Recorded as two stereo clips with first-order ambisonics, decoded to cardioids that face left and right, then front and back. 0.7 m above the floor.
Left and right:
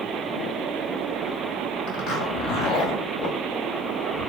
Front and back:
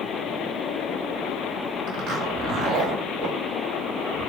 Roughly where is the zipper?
Behind left.